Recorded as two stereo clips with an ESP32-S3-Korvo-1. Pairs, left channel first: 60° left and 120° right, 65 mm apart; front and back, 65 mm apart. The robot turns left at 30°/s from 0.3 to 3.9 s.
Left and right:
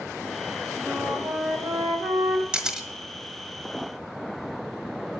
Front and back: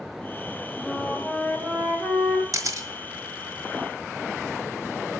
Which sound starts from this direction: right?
A flute, at 0.8 s.